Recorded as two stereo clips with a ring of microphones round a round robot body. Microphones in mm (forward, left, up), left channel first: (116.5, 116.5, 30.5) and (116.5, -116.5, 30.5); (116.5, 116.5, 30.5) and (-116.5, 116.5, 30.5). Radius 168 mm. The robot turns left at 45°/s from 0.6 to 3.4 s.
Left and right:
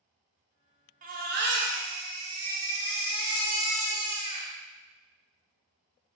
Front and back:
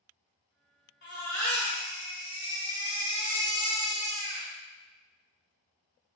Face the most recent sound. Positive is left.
turn(degrees=-145)